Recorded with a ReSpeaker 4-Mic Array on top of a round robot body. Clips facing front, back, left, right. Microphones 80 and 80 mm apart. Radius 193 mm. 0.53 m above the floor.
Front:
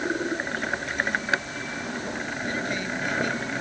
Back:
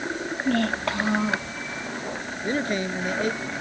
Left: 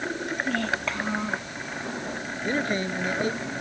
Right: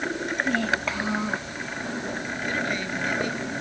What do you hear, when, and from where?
0.5 s a child speaking: 175° right
2.4 s a man speaking: 140° left